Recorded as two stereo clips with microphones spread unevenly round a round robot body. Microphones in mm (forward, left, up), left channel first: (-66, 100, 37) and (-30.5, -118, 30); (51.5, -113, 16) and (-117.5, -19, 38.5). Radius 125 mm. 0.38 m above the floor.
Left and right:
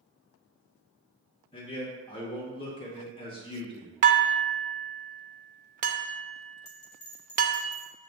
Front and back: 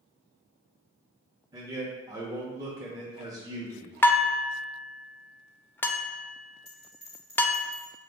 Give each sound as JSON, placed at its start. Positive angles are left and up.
{"t": 1.5, "sound": "a man speaking", "azimuth_deg": 90, "distance_m": 0.8}
{"t": 4.0, "sound": "dishes clattering", "azimuth_deg": -90, "distance_m": 0.5}
{"t": 6.7, "sound": "a bell", "azimuth_deg": 55, "distance_m": 1.0}